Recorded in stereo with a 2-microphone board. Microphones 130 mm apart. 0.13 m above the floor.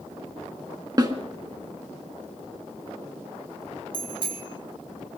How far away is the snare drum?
About 1.6 m.